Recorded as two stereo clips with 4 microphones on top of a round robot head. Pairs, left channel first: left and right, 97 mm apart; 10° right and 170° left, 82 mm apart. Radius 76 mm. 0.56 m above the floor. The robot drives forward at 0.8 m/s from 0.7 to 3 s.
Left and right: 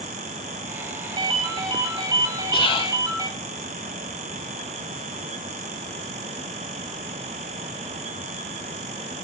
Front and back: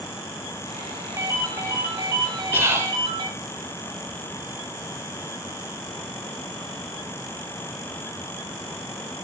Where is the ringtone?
125° right, 2.5 m; by 3.3 s 145° right, 3.5 m.